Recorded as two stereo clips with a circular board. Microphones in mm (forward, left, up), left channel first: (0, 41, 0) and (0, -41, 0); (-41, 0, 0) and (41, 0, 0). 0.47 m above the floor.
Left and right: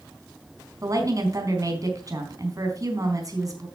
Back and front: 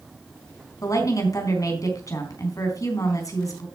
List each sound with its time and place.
0.8 s a woman speaking: 135° right, 4 m